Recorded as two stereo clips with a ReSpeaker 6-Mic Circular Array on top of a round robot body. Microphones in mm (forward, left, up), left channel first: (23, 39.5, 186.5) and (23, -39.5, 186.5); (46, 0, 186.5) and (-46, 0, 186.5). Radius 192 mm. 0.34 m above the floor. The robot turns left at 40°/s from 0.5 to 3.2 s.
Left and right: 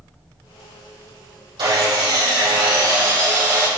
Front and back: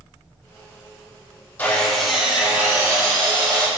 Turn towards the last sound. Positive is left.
turn(degrees=-135)